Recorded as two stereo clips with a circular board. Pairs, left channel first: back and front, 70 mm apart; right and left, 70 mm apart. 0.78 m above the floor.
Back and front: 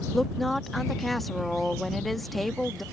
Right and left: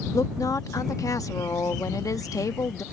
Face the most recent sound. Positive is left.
turn(degrees=-90)